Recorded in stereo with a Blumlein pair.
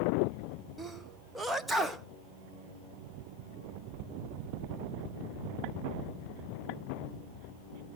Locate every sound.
0.8 s a sneeze: 5° right, 0.8 m